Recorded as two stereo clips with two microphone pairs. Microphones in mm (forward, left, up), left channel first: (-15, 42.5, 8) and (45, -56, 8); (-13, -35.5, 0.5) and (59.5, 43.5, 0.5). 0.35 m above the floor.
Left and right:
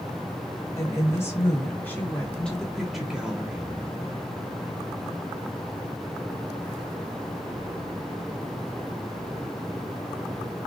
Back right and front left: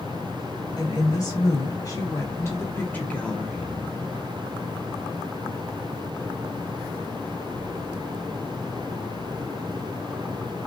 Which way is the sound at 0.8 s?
Straight behind.